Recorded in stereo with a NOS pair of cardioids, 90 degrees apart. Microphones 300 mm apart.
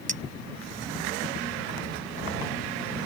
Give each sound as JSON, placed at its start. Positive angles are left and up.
{"t": 0.1, "sound": "a clink", "azimuth_deg": -25}